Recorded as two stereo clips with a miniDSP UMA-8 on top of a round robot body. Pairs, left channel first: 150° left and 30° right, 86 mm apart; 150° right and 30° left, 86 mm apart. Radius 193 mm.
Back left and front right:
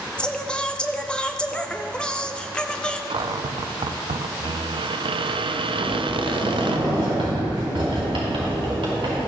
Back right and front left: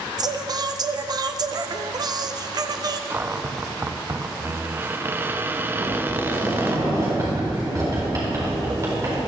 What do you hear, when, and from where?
0.2 s singing: 70° left, 0.7 m
3.1 s a cupboard door: 35° right, 0.6 m
5.8 s a sliding door: 20° right, 4.5 m